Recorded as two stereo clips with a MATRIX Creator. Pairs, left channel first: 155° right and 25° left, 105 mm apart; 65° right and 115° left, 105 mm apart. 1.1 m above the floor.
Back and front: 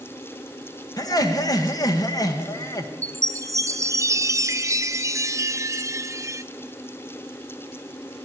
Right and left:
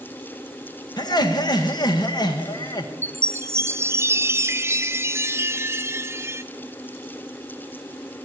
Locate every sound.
1.0 s laughter: 110° right, 1.4 m
3.0 s a chime: 65° left, 0.5 m